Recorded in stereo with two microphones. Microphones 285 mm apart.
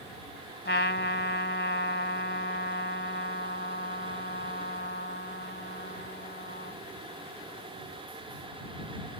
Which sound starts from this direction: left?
A trumpet, at 0.7 s.